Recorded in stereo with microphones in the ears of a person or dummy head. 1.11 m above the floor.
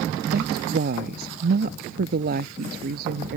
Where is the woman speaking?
55° right (ahead or behind).